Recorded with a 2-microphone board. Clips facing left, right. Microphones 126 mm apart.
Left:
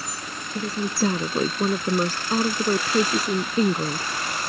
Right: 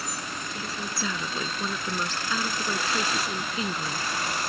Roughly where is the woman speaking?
Left.